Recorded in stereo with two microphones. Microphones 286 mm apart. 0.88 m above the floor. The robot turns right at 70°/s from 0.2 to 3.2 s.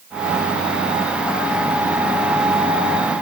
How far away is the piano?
I don't hear a piano.